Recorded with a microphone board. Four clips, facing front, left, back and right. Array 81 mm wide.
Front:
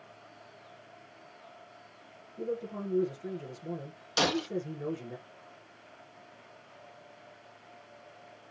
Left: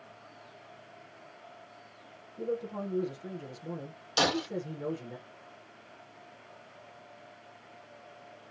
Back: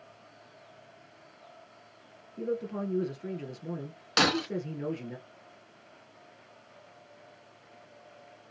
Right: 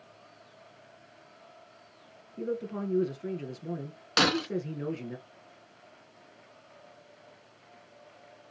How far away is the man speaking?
About 2.5 m.